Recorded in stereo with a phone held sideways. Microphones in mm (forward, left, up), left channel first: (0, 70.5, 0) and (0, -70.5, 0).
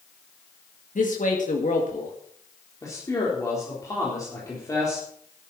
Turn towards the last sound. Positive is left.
turn(degrees=25)  # may be behind; listen again after turning